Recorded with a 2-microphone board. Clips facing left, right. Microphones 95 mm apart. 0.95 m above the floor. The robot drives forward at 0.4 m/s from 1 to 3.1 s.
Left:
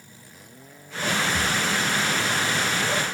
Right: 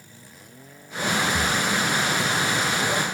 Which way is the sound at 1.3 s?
5° right (ahead or behind).